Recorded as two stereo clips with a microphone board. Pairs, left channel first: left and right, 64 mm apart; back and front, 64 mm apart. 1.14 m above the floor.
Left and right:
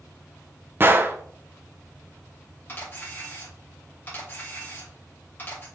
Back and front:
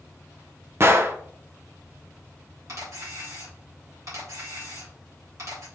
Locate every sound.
0.8 s a gunshot: 40° right, 0.5 m
2.7 s a camera shutter: 35° left, 2.5 m